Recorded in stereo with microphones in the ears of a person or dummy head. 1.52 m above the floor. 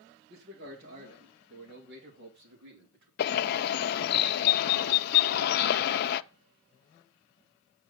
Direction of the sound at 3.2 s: 55° left (ahead or behind).